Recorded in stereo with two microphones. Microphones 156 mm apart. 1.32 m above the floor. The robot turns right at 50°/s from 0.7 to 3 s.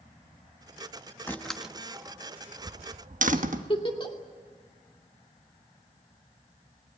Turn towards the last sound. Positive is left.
turn(degrees=35)  # may be behind; listen again after turning